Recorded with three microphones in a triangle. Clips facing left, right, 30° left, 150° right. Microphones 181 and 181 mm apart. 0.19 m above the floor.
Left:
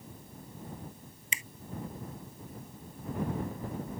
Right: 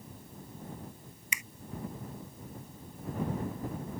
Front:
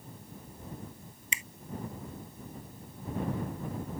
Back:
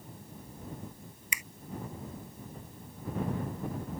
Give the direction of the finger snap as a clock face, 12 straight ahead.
10 o'clock.